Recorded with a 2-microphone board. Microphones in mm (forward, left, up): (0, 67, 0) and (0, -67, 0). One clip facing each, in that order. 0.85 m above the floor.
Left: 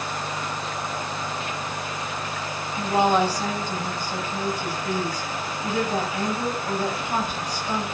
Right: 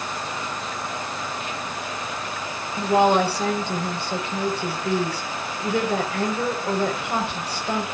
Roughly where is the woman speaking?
Right.